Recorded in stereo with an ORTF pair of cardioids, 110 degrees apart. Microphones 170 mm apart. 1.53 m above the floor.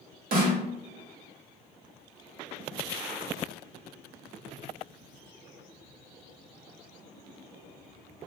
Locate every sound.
0.3 s a snare drum: 60° right, 0.9 m